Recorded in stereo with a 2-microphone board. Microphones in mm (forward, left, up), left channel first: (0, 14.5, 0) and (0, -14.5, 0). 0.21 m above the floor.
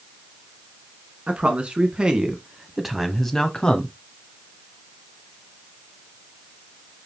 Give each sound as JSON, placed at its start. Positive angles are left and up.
{"t": 1.3, "sound": "a man speaking", "side_deg": -40, "distance_m": 2.5}